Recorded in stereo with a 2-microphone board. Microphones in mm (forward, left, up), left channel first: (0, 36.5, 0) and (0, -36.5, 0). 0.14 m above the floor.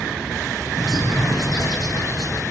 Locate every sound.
0.8 s a bird: 60° left (ahead or behind), 6.5 m